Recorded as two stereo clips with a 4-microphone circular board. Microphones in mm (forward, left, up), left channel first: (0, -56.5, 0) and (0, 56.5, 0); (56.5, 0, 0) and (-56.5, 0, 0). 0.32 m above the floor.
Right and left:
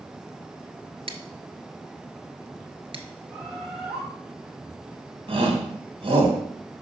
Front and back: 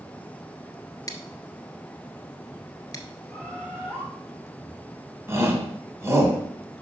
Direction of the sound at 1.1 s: 55° left.